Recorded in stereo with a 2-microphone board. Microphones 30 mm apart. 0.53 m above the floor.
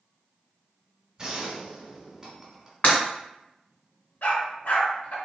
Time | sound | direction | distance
1.2 | a gunshot | 25° right (ahead or behind) | 1.5 m
2.8 | breaking glass | 70° left (ahead or behind) | 1.7 m
4.2 | a dog barking | 75° left (ahead or behind) | 1.6 m